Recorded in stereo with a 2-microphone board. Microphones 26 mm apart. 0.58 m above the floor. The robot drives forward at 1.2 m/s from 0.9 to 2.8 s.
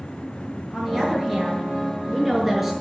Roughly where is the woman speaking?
Centre.